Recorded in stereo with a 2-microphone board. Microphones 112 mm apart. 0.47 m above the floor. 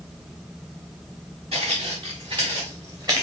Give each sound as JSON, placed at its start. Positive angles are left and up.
{"t": 1.5, "sound": "footsteps", "side_deg": -55, "distance_m": 3.5}